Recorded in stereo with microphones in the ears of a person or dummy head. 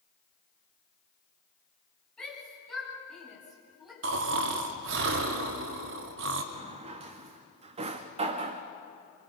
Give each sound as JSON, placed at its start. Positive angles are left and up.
{"t": 2.2, "sound": "a shout", "side_deg": 10, "distance_m": 9.0}
{"t": 4.0, "sound": "snoring", "side_deg": -70, "distance_m": 2.0}
{"t": 6.5, "sound": "a drawer", "side_deg": -40, "distance_m": 1.3}